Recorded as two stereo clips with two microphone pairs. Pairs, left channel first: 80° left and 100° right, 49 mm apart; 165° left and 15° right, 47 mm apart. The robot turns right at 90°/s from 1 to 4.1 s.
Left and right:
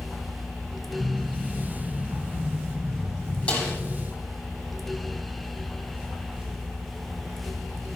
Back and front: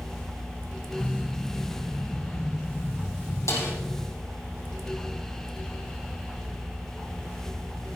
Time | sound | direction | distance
3.5 | a snare drum | 145° left | 5.5 m